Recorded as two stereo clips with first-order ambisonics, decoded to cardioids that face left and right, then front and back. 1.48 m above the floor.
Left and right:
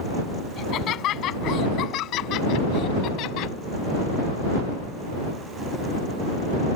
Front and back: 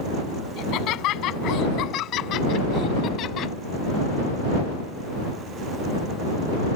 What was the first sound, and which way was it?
Laughter, 40° left.